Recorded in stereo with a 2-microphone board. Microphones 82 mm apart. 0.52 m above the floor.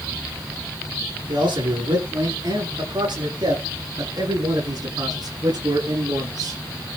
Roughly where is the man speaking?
Right.